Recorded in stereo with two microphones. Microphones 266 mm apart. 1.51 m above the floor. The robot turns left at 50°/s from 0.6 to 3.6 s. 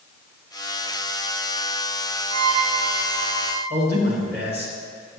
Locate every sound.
2.3 s a violin: 100° right, 0.9 m; by 3.6 s 165° right, 0.9 m
3.7 s a man speaking: 40° right (ahead or behind), 2.5 m